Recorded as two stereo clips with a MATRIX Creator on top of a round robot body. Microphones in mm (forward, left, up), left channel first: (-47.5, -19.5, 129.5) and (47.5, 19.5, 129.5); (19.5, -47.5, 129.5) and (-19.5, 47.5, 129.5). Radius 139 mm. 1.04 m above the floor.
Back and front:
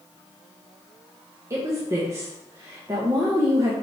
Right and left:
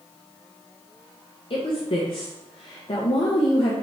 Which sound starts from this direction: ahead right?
A woman speaking, at 1.5 s.